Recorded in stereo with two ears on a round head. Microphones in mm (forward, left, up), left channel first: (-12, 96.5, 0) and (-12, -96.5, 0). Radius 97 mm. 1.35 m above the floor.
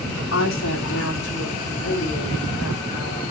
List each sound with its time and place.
0.3 s a woman speaking: 60° left (ahead or behind), 4 m; by 3.2 s 55° left (ahead or behind), 6.5 m